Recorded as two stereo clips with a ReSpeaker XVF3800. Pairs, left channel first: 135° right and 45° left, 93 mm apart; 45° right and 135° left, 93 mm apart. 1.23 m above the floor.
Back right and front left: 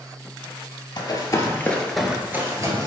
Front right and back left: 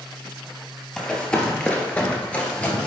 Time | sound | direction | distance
1.0 | running footsteps | 125° right | 1.7 m